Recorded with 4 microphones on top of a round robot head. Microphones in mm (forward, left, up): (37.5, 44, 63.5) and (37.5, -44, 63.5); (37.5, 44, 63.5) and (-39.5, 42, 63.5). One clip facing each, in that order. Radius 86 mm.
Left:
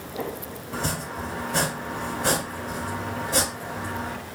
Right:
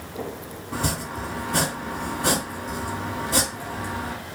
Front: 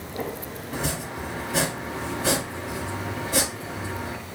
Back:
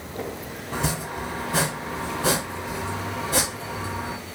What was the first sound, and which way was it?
Chopping, 135° right.